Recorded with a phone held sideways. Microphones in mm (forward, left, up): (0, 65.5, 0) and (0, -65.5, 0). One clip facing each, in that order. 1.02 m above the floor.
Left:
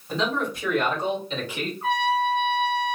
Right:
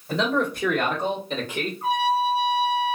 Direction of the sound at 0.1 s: 65° right (ahead or behind).